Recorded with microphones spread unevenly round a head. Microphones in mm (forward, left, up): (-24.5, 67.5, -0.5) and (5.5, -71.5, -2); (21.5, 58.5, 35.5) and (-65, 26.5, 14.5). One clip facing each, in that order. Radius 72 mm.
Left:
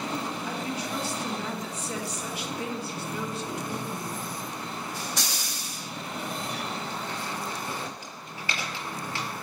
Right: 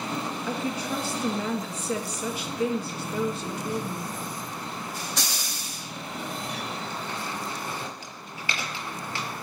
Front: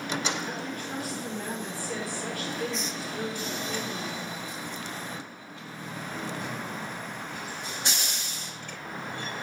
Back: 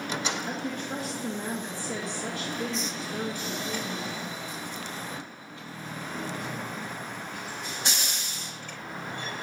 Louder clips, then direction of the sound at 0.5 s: Right 3 dB, back 2 dB; 90° right.